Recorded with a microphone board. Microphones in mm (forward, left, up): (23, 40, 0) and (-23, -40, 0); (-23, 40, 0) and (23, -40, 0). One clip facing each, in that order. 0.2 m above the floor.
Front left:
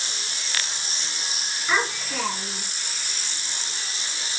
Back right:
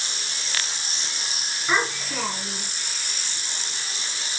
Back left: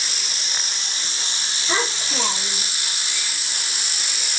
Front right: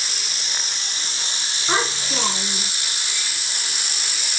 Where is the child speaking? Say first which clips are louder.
Back right 1 dB, front right 2 dB; 40° right, 1.6 m.